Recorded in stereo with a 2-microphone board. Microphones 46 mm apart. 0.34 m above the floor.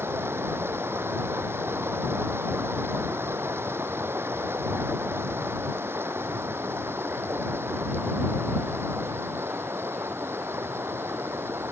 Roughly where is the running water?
Right.